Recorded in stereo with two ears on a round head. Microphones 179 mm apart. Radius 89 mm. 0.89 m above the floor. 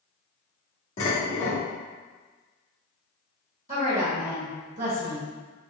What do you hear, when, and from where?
1.0 s dishes clattering: 40° left (ahead or behind), 1.6 m
3.7 s a woman speaking: 40° right (ahead or behind), 1.2 m